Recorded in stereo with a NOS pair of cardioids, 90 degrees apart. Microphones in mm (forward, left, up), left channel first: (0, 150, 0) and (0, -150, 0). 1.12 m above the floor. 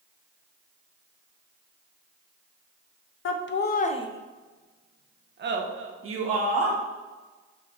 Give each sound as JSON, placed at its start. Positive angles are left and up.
{"t": 3.2, "sound": "laughter", "azimuth_deg": 50, "distance_m": 0.7}